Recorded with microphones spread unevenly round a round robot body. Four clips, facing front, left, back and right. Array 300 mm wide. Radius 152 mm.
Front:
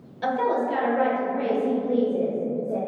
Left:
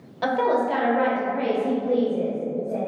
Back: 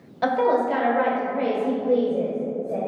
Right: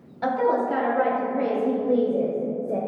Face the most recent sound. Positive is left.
turn(degrees=-80)